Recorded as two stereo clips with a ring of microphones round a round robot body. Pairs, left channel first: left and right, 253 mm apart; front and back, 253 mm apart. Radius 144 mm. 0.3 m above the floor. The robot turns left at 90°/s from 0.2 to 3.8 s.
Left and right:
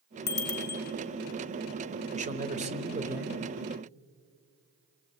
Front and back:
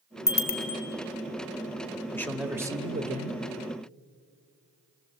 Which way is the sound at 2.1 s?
70° right.